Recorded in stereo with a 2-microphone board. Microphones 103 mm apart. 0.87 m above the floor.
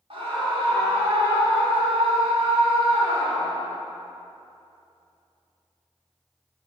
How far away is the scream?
About 2.5 m.